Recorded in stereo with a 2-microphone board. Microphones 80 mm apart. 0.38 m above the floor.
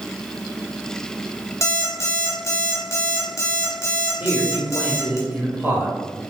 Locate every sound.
1.6 s an alarm clock: 40° left (ahead or behind), 1.0 m
4.2 s a man speaking: 20° right (ahead or behind), 1.3 m